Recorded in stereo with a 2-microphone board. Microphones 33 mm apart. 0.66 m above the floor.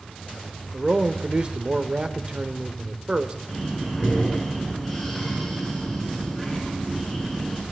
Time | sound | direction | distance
0.7 | a man speaking | 35° right (ahead or behind) | 1.7 m
3.5 | breathing | 5° left (ahead or behind) | 6.5 m